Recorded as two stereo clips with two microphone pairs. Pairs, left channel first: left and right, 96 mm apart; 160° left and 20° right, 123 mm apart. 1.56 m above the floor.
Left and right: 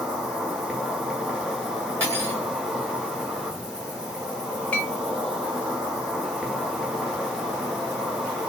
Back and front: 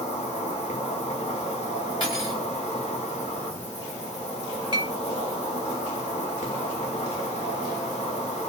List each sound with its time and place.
0.0 s an insect: 175° right, 1.9 m
2.0 s cutlery clinking: 155° right, 3 m
4.7 s a clink: 15° left, 1.2 m